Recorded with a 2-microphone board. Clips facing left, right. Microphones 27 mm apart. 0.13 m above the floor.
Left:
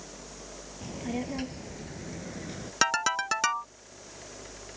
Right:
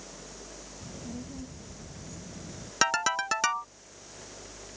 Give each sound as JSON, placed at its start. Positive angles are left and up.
{"t": 0.8, "sound": "a child speaking", "side_deg": 65}
{"t": 2.8, "sound": "a ringtone", "side_deg": 0}